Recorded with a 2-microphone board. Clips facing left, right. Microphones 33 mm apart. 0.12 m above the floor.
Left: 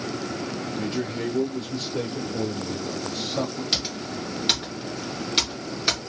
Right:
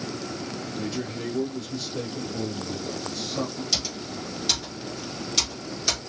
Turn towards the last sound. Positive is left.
turn(degrees=40)  # may be behind; listen again after turning